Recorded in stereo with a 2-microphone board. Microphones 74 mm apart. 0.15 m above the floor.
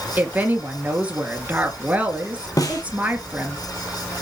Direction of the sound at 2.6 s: 50° left (ahead or behind).